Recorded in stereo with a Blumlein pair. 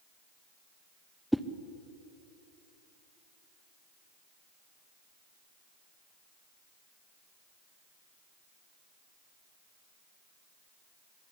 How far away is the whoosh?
About 0.9 m.